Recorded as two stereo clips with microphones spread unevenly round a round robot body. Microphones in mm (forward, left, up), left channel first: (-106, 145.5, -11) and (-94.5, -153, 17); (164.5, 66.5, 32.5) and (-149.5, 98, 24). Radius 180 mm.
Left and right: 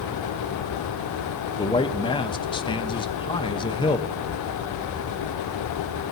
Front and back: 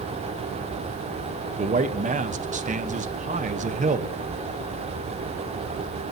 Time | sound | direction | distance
1.6 | a man speaking | 140° left | 0.8 m